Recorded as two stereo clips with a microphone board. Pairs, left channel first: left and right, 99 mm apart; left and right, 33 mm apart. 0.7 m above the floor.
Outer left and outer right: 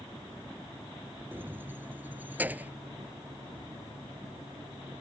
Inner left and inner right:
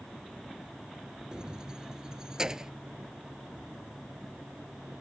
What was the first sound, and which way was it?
Keys jangling, 20° right (ahead or behind).